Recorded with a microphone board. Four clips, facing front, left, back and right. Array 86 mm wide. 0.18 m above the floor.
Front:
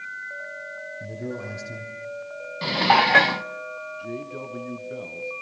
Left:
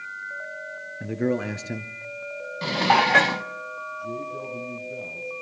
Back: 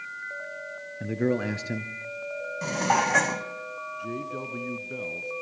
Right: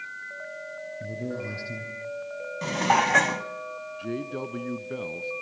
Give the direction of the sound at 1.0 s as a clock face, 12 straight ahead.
8 o'clock.